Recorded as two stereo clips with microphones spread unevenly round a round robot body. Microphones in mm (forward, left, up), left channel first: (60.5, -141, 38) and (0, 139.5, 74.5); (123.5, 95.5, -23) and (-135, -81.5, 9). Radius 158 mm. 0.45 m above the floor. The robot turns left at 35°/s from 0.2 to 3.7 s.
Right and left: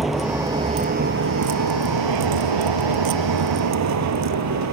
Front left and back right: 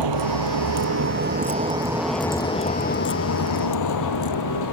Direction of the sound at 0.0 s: 170° right.